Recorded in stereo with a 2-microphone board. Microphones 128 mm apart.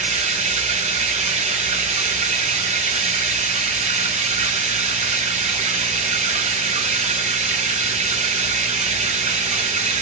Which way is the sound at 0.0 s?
65° right (ahead or behind).